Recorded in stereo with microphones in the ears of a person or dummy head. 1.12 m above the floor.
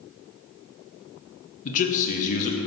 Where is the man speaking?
50° left (ahead or behind), 0.9 m.